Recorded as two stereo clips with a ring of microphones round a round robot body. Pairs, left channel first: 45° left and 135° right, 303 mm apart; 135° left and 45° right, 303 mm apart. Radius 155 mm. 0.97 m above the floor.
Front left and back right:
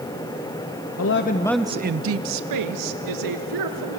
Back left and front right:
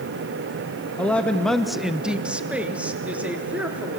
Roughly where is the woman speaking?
Ahead left.